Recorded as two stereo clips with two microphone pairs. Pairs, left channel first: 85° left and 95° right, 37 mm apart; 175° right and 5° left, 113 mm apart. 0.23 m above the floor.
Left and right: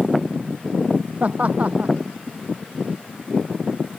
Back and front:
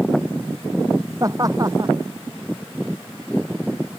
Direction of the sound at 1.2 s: 50° right.